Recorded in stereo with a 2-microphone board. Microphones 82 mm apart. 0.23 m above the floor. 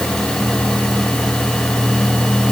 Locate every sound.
Only background noise.